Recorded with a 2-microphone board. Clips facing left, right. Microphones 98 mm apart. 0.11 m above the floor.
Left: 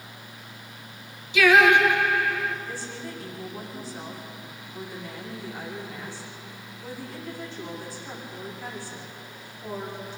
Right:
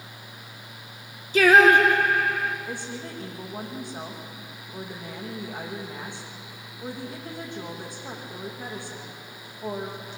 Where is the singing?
45° right (ahead or behind), 1.7 m.